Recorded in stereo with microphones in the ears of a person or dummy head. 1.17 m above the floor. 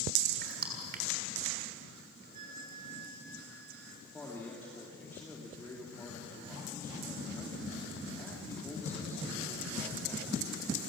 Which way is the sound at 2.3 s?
45° right (ahead or behind).